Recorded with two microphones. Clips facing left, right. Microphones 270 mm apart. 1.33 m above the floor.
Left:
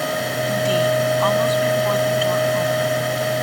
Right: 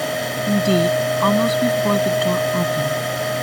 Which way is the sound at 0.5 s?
50° right (ahead or behind).